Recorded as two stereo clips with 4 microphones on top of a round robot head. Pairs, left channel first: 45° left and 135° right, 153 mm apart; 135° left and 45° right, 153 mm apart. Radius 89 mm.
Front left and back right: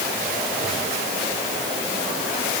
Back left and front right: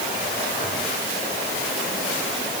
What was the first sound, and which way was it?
Only background noise.